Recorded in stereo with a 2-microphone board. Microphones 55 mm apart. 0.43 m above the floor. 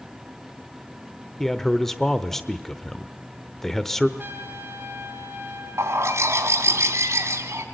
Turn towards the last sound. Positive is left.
turn(degrees=-55)  # may be behind; listen again after turning